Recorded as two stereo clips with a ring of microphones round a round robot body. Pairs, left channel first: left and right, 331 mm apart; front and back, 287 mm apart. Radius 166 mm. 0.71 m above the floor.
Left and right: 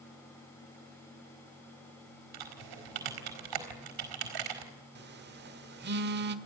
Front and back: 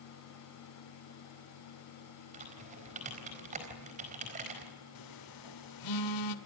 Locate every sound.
2.3 s typing on a keyboard: 110° right, 4.5 m
5.0 s a phone buzzing: 30° right, 1.4 m